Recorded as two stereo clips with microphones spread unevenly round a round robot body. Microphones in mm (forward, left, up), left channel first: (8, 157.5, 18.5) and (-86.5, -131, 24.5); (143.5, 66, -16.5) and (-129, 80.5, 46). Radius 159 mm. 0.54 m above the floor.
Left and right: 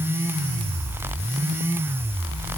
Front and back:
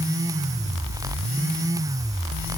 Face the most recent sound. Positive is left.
No sound to turn to.